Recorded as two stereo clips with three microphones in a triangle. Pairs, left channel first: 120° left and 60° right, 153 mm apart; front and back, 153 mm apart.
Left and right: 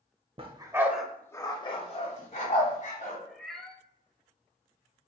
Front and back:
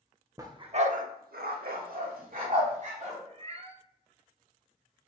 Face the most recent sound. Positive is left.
turn(degrees=-155)